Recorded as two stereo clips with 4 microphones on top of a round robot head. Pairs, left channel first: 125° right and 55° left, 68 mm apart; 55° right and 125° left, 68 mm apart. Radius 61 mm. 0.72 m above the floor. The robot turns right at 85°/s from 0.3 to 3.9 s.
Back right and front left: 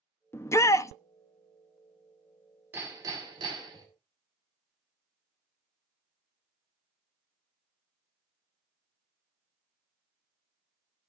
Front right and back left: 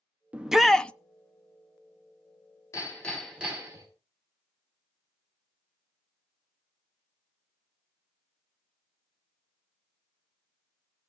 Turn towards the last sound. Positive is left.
turn(degrees=90)